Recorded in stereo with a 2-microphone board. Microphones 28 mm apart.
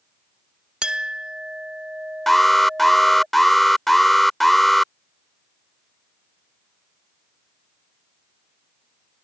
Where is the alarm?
5° left (ahead or behind).